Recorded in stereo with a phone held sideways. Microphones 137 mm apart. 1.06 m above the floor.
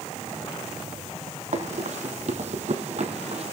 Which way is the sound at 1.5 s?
60° right (ahead or behind).